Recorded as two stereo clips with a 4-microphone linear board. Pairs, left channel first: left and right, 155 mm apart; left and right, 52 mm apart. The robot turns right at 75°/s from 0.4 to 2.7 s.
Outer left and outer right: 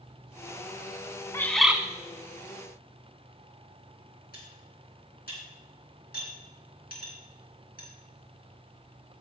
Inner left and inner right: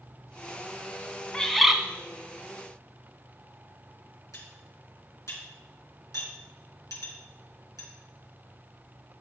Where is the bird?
160° left, 1.0 m; by 1.8 s 170° right, 1.0 m.